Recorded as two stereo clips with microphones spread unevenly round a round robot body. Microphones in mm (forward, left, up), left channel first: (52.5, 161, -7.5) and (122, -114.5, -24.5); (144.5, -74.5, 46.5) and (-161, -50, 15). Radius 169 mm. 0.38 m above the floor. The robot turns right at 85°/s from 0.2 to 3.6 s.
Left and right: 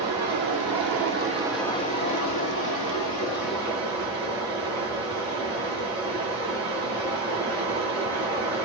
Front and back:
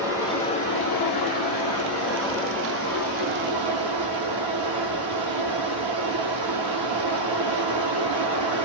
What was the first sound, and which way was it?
Running water, 105° right.